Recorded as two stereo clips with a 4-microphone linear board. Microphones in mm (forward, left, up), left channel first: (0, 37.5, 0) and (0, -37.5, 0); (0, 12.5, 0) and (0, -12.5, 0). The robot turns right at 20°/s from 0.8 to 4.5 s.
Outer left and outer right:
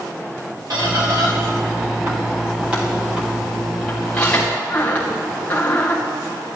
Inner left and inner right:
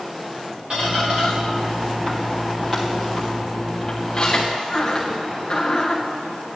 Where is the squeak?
55° right (ahead or behind), 2.5 m; by 6.0 s 20° left (ahead or behind), 2.5 m.